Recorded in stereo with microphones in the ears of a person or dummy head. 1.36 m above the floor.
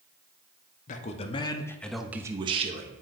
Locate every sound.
0.9 s a man speaking: 45° left (ahead or behind), 1.0 m; by 3.0 s 45° right (ahead or behind), 0.9 m